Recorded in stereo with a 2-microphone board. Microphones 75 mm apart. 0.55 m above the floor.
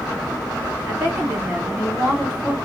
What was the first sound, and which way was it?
A woman speaking, 25° right (ahead or behind).